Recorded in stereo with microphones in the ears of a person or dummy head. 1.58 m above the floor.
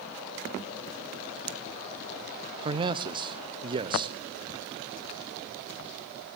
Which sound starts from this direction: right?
A man speaking, at 2.6 s.